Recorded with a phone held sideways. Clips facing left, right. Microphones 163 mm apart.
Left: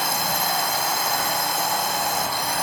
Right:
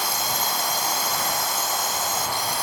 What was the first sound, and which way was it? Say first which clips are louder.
A drone: left 3 dB; 65° left (ahead or behind).